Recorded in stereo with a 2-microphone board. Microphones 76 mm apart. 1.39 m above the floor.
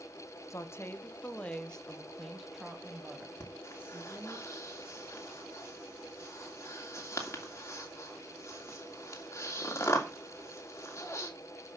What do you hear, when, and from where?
0.5 s a woman speaking: 40° left (ahead or behind), 1.1 m; by 4.4 s 20° right (ahead or behind), 2.5 m
3.4 s breathing: 35° left (ahead or behind), 2.5 m